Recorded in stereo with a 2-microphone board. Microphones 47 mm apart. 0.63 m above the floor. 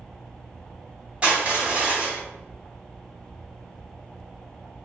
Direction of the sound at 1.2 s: 30° right (ahead or behind).